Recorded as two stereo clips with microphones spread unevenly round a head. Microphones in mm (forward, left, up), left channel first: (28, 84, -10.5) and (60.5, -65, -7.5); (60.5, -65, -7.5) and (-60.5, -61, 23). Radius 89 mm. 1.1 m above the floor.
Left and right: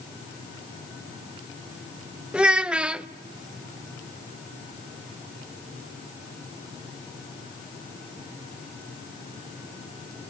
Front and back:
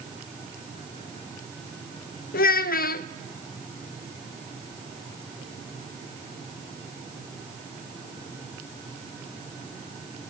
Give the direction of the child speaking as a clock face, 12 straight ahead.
12 o'clock.